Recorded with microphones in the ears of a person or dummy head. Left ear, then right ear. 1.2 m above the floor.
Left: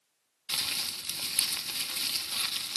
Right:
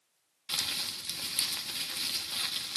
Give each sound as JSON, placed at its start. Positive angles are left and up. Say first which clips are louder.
{"t": 0.5, "sound": "crumpling", "louder": "left 1 dB", "side_deg": 20, "distance_m": 1.1}